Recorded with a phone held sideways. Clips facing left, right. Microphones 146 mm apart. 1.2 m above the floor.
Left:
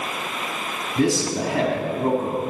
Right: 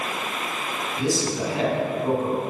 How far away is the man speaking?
About 3.5 m.